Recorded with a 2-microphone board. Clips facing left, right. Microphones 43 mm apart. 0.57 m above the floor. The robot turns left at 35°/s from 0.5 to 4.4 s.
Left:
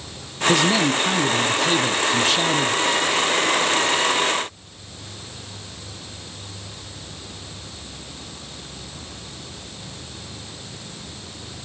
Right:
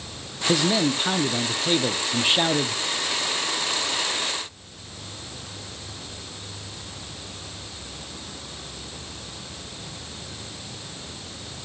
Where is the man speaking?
5° right (ahead or behind), 0.6 m; by 2.8 s 20° right (ahead or behind), 0.6 m.